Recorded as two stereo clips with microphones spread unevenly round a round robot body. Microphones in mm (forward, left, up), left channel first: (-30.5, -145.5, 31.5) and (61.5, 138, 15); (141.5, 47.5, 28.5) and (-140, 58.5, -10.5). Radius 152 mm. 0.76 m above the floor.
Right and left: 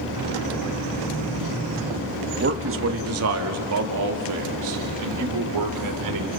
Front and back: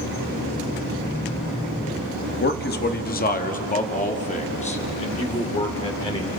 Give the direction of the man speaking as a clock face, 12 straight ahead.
11 o'clock.